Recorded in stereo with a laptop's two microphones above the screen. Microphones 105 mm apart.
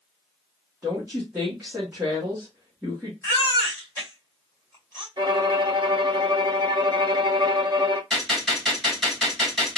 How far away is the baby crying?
About 2.5 m.